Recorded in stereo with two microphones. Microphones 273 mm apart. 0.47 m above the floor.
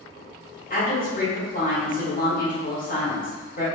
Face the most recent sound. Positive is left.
turn(degrees=30)  # may be behind; listen again after turning